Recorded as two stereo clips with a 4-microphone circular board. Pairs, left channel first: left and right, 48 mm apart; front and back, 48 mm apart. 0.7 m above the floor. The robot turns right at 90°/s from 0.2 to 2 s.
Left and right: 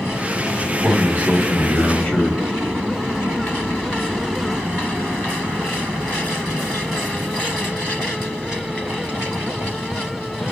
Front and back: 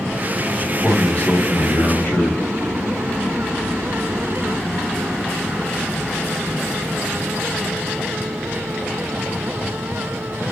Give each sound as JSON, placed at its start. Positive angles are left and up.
{"t": 0.6, "sound": "a man speaking", "azimuth_deg": -105, "distance_m": 2.0}